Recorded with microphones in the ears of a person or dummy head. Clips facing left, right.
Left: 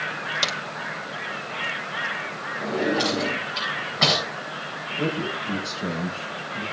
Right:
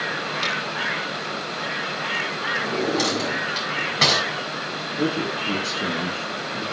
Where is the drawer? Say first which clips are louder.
Even; 45° right (ahead or behind), 7 m.